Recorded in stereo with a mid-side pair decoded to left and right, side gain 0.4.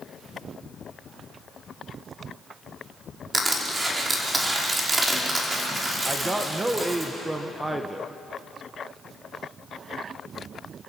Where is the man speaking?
20° right, 1.6 m.